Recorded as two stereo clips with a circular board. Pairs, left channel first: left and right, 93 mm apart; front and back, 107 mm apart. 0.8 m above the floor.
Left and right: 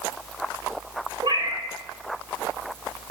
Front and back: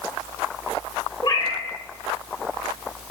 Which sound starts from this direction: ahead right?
A cat meowing, at 1.2 s.